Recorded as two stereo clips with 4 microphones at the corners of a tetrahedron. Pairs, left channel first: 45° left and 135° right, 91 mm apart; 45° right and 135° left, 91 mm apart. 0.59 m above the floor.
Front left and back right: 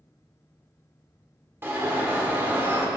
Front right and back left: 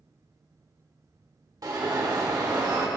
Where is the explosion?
I don't hear an explosion.